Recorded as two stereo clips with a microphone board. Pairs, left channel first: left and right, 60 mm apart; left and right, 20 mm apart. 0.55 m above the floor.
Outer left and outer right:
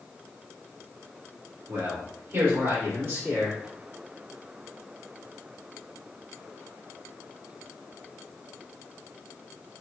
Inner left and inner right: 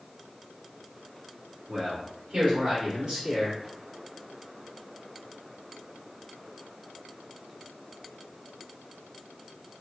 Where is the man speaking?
45° right (ahead or behind), 1.6 m; by 3.6 s 35° right (ahead or behind), 1.3 m.